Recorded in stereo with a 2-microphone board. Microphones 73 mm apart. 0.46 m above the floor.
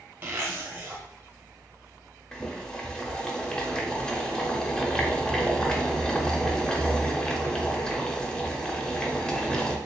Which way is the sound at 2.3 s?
10° left (ahead or behind).